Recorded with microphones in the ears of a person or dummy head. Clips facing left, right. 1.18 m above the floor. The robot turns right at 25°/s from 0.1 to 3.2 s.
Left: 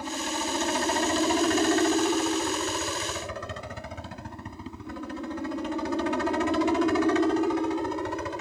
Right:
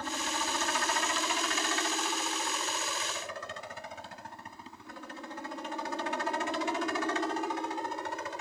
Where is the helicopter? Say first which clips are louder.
Left 5 dB; 15° left; by 8.4 s 90° left.